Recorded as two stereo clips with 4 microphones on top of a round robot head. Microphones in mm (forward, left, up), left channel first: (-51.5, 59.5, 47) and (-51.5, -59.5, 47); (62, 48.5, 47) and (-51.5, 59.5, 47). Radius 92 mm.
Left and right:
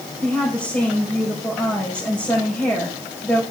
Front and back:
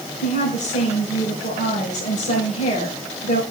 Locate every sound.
0.2 s a woman speaking: 10° left, 5 m